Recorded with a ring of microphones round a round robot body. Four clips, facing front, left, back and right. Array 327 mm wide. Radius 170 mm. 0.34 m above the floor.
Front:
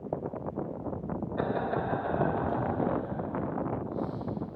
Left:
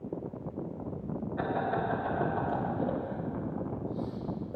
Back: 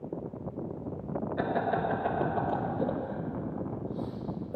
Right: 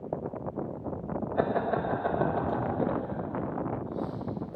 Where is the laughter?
100° right, 1.7 m; by 4.6 s 160° left, 1.8 m.